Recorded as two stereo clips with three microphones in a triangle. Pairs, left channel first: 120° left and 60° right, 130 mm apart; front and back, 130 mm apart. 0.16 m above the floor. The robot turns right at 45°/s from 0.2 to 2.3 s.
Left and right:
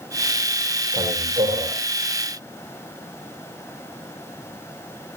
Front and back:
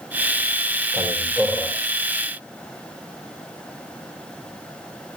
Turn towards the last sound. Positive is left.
turn(degrees=-40)